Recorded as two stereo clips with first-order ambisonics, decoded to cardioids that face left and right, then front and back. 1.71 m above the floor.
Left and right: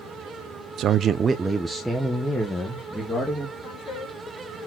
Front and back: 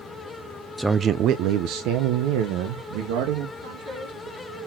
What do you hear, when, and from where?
0.8 s a man speaking: 90° right, 0.5 m; by 3.5 s 170° left, 2.5 m
3.6 s a woman speaking: 160° left, 5 m